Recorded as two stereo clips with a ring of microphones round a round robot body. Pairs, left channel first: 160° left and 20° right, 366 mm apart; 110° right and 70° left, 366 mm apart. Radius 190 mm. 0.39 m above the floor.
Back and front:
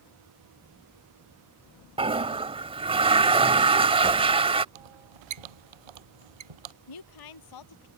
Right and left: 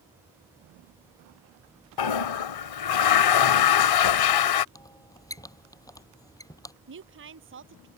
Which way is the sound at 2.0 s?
95° right.